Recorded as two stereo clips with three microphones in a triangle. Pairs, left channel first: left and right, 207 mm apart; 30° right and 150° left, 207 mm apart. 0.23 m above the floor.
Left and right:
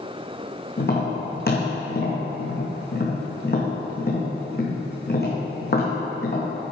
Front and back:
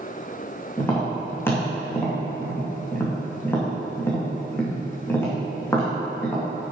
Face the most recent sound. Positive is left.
turn(degrees=50)